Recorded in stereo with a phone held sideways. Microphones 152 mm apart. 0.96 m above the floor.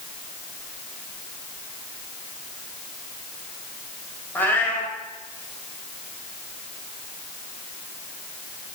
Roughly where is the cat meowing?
Centre.